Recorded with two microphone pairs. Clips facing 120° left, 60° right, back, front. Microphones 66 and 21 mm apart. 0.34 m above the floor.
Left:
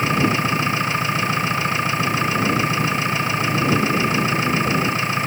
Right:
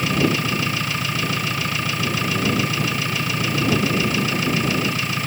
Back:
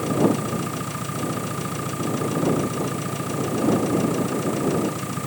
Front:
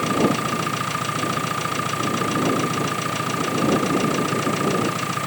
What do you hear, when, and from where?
0.0 s an engine running: 55° left